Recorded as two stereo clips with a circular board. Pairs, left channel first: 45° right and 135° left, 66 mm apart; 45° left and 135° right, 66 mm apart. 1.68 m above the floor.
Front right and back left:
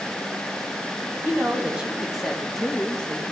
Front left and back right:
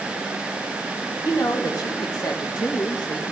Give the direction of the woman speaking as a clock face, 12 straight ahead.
9 o'clock.